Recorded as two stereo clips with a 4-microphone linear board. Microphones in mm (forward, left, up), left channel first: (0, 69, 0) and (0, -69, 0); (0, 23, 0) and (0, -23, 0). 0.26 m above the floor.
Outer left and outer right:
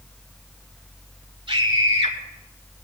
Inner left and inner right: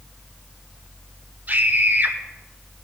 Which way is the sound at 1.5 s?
40° right (ahead or behind).